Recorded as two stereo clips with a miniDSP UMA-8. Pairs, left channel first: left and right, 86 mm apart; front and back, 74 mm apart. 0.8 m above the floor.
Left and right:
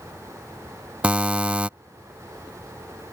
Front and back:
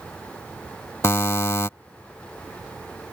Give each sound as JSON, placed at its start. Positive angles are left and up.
{"t": 1.0, "sound": "a buzzer", "azimuth_deg": -25}